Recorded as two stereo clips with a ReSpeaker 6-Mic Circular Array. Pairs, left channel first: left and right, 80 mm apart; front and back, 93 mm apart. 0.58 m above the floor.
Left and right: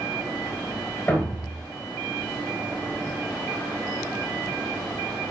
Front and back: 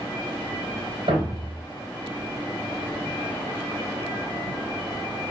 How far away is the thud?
About 3 m.